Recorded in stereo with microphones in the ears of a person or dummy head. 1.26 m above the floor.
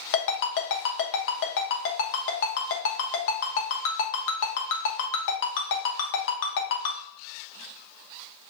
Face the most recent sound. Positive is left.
turn(degrees=65)  # may be behind; listen again after turning